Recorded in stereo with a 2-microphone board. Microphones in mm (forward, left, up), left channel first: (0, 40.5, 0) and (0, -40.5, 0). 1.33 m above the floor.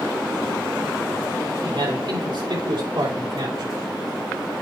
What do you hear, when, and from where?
1.6 s a man speaking: 85° right, 4 m; by 3.8 s 65° right (ahead or behind), 5 m